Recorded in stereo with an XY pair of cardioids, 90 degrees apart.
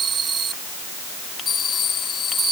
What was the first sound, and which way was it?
Only background noise.